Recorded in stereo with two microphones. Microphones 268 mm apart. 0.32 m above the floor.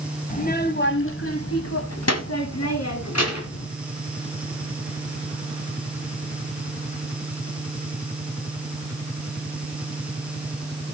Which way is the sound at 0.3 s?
30° left (ahead or behind).